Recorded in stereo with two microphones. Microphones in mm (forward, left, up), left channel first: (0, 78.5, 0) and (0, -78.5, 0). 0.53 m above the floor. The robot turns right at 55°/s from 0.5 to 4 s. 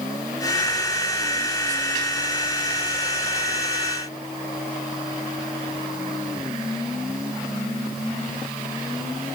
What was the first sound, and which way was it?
Only background noise.